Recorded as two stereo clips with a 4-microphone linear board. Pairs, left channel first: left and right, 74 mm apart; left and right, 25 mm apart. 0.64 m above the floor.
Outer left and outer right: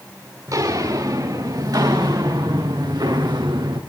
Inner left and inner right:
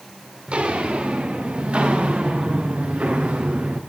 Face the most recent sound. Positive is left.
turn(degrees=-75)  # may be behind; listen again after turning